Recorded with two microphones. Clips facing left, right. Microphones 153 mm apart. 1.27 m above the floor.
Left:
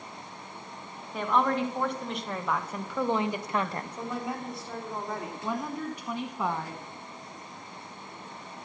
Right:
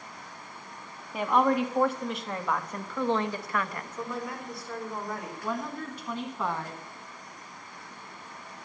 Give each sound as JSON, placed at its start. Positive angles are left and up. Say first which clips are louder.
{"t": 1.1, "sound": "a woman speaking", "louder": "right 2 dB", "side_deg": -10, "distance_m": 2.0}
{"t": 4.0, "sound": "a woman speaking", "louder": "even", "side_deg": 25, "distance_m": 4.0}
{"t": 5.4, "sound": "a woman speaking", "louder": "left 1 dB", "side_deg": 15, "distance_m": 1.1}